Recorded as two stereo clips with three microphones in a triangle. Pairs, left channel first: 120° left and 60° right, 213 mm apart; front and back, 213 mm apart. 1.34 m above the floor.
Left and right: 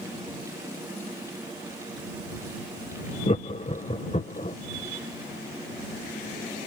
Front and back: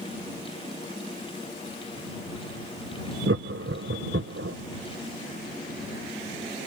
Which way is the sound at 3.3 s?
Straight behind.